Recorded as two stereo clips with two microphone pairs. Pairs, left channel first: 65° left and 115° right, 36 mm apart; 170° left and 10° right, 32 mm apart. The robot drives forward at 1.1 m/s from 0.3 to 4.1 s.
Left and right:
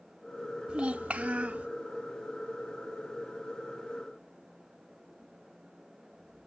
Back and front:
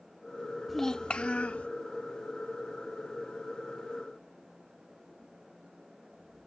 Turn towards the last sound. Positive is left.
turn(degrees=-175)